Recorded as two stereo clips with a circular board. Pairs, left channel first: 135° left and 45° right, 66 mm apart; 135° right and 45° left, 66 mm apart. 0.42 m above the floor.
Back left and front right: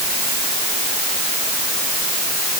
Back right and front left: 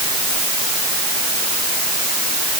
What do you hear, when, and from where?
Only background noise.